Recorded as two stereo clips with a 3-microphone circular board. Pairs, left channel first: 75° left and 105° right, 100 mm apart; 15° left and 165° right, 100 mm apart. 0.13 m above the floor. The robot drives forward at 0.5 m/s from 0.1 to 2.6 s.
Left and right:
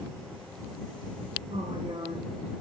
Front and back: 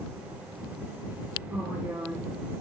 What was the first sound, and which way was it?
A woman speaking, 95° right.